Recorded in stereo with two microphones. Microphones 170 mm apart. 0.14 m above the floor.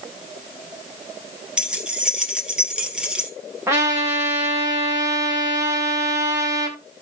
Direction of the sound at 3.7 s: 15° right (ahead or behind).